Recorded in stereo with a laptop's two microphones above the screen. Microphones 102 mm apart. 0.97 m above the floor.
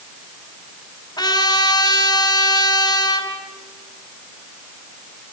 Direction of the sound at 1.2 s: 50° left (ahead or behind).